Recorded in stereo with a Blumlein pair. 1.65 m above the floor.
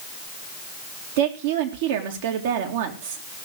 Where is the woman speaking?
55° right, 2 m.